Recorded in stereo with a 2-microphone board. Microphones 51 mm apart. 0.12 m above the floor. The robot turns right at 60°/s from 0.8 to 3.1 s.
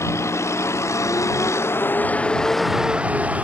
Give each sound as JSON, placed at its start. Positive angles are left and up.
{"t": 0.0, "sound": "a vehicle", "side_deg": 70}